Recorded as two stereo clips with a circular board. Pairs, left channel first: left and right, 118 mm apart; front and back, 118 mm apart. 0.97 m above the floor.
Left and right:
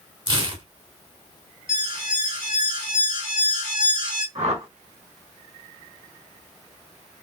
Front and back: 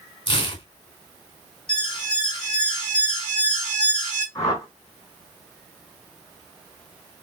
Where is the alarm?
50° right, 6.5 m.